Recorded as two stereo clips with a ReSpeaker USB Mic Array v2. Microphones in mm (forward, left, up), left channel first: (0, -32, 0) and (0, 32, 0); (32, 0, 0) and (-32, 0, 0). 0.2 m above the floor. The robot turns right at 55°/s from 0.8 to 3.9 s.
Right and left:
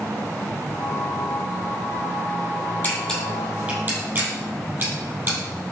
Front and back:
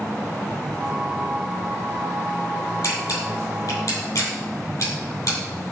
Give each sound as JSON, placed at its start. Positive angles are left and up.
{"t": 2.8, "sound": "a camera shutter", "azimuth_deg": -25, "distance_m": 6.5}